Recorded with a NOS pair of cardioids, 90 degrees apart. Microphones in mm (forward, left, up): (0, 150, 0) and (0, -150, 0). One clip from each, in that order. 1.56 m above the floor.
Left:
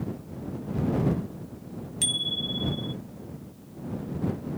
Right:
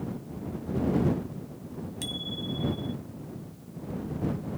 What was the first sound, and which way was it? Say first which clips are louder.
A bicycle bell: left 8 dB; 40° left.